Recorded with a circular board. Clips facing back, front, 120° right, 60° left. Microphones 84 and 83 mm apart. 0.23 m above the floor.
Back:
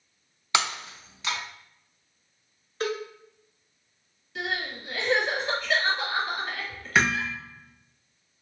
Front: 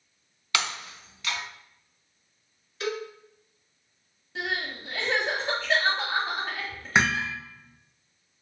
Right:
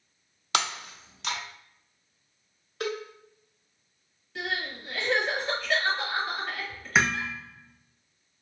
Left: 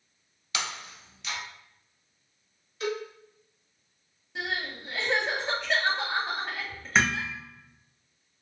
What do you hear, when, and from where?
0.5 s breaking glass: 115° right, 0.5 m
2.8 s a cowbell: 135° right, 0.7 m
4.3 s crying: 10° left, 1.2 m
7.0 s hammering: 45° right, 0.6 m